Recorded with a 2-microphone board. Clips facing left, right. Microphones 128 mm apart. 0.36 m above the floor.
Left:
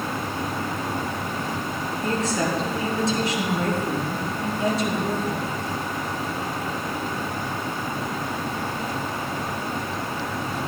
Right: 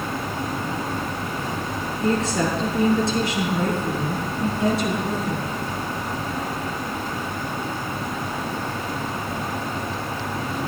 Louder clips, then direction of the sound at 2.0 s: Right 3 dB; 60° right (ahead or behind).